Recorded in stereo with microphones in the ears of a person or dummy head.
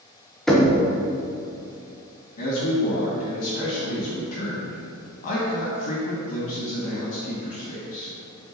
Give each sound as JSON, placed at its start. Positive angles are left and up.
{"t": 0.5, "sound": "knocking", "side_deg": 0, "distance_m": 1.1}
{"t": 2.4, "sound": "a man speaking", "side_deg": 45, "distance_m": 2.5}